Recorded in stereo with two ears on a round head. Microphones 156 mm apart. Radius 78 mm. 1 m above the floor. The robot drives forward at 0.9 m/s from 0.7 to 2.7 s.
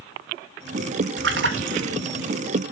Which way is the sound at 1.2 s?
70° right (ahead or behind).